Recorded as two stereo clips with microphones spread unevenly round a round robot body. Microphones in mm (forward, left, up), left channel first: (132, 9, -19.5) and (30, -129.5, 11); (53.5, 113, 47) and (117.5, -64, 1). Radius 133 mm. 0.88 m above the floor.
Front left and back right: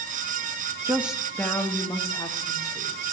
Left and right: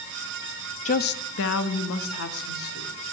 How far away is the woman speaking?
About 0.5 m.